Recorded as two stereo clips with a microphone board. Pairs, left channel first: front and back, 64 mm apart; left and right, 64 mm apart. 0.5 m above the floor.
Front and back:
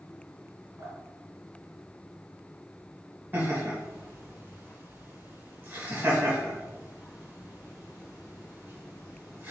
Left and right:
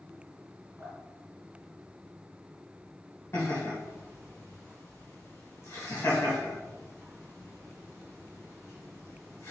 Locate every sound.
0.8 s dripping: 150° right, 1.9 m
3.3 s laughter: 130° left, 1.6 m